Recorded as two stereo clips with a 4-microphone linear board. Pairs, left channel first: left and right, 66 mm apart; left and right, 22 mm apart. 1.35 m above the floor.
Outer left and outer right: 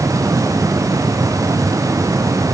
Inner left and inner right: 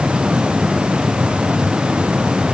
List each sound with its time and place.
Only background noise.